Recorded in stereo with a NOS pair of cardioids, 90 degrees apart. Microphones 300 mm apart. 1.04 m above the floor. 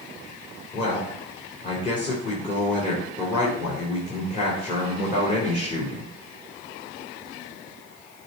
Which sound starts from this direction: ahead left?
A man speaking, at 0.7 s.